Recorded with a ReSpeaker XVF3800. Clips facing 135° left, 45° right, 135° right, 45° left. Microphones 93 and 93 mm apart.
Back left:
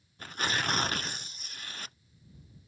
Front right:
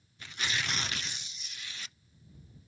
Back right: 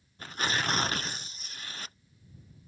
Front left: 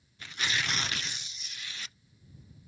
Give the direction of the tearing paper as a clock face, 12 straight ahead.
6 o'clock.